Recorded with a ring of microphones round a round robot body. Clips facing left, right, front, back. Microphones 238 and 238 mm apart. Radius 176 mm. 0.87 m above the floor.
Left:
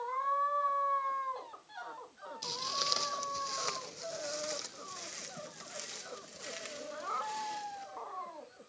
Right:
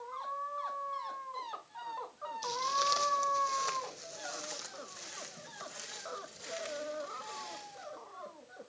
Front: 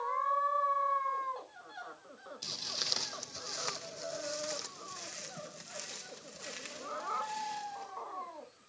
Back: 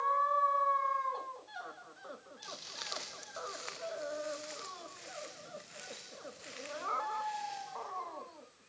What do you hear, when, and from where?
2.4 s footsteps: 30° left, 1.9 m; by 7.9 s 35° left, 4.5 m